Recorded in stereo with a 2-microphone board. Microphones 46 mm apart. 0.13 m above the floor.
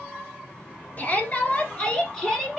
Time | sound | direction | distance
1.0 | a shout | 35° left (ahead or behind) | 1.8 m